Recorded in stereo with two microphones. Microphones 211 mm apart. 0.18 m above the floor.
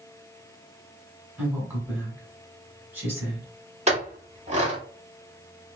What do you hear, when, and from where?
1.4 s a woman speaking: 10° right (ahead or behind), 1.1 m
3.9 s a clink: 30° right (ahead or behind), 0.9 m